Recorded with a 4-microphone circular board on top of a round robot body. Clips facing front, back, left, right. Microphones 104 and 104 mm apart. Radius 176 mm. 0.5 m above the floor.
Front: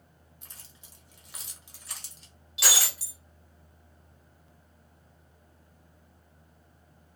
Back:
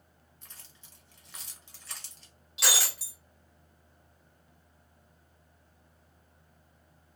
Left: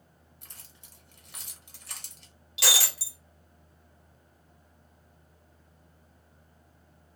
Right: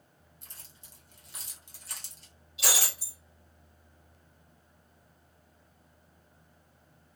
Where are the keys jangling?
75° left, 1.2 m.